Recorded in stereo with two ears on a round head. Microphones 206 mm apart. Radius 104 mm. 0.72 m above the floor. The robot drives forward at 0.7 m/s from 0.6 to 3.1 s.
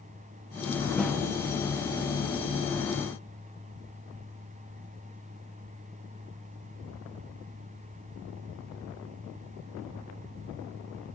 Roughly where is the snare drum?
Centre.